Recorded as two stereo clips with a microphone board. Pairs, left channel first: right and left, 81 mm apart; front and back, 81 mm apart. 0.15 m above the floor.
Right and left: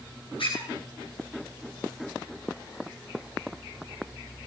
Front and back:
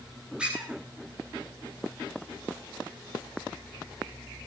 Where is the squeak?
100° right, 8.5 m.